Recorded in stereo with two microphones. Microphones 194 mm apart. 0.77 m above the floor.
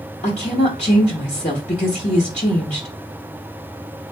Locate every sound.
0.2 s a woman speaking: 40° left (ahead or behind), 0.7 m